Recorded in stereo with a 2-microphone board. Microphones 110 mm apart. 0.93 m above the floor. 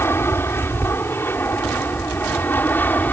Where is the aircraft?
20° left (ahead or behind); by 3.1 s 15° left (ahead or behind).